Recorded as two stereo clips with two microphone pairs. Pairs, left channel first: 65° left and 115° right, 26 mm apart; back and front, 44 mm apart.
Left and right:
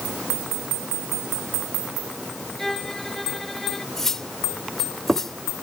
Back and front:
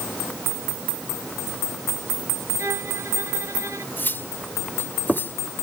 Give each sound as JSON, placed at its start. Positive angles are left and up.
{"t": 2.6, "sound": "a violin", "azimuth_deg": -10}
{"t": 4.0, "sound": "cutlery clinking", "azimuth_deg": 145}